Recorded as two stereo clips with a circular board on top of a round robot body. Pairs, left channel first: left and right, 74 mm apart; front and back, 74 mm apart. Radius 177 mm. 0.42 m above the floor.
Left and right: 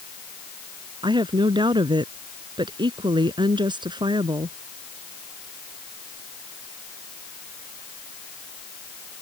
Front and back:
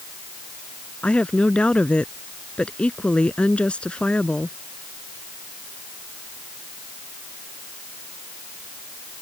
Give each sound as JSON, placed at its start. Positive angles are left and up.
{"t": 1.0, "sound": "a woman speaking", "azimuth_deg": -75}